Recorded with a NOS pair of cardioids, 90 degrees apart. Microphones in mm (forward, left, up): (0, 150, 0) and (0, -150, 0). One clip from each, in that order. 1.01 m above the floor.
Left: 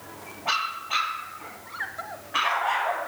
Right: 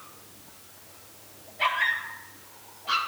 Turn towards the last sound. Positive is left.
No sound to turn to.